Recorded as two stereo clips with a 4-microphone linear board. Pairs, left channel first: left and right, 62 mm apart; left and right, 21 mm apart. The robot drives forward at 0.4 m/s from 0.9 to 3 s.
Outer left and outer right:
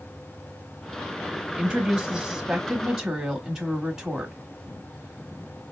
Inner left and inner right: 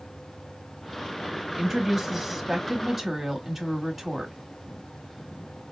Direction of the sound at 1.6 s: 15° right (ahead or behind).